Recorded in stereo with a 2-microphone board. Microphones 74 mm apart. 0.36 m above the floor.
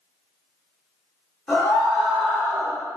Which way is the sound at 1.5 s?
15° left (ahead or behind).